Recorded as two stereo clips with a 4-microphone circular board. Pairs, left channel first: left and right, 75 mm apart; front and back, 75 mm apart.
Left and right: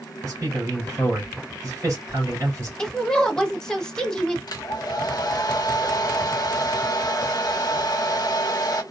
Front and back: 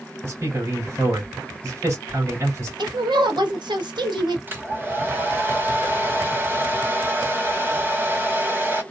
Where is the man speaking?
135° right, 2.5 m.